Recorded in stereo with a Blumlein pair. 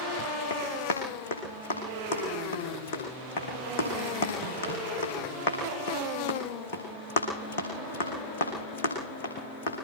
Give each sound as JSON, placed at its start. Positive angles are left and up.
{"t": 0.5, "sound": "running footsteps", "azimuth_deg": 60, "distance_m": 7.0}